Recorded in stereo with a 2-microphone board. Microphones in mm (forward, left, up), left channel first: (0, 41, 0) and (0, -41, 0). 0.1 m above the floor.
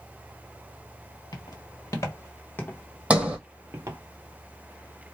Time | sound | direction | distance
1.3 | footsteps | 55° left (ahead or behind) | 1.4 m
3.1 | a sliding door | 15° right (ahead or behind) | 0.6 m